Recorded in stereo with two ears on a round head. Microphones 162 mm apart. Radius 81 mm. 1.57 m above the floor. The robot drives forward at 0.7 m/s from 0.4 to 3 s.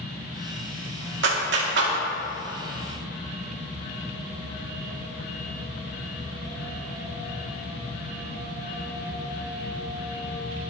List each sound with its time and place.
1.2 s a clap: 75° right (ahead or behind), 2.5 m; by 1.9 s 65° right (ahead or behind), 2.5 m